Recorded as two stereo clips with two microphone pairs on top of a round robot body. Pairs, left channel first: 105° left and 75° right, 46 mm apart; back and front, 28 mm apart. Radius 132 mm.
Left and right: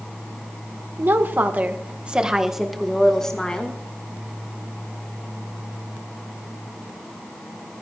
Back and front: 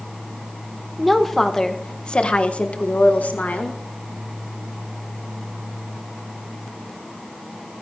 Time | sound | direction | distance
1.0 | a woman speaking | 90° right | 2 m